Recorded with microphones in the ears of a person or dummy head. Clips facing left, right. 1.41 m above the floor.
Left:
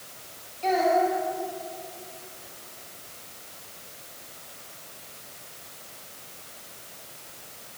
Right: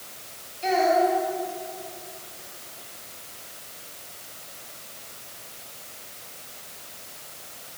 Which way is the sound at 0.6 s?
20° right (ahead or behind).